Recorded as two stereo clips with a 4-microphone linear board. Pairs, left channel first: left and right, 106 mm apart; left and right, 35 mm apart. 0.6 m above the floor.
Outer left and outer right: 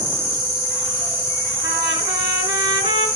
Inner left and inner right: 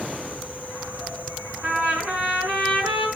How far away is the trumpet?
About 5.5 m.